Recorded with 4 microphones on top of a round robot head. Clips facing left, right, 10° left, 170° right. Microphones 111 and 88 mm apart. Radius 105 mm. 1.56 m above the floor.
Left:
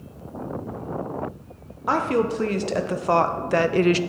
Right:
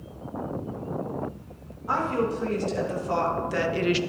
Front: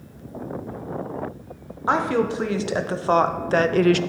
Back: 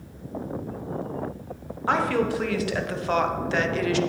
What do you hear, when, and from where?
1.9 s a woman speaking: 75° left, 1.6 m; by 4.0 s 40° left, 0.6 m